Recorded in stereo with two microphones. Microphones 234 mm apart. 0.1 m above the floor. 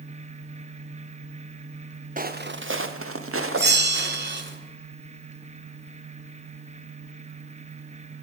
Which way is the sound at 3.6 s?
55° right (ahead or behind).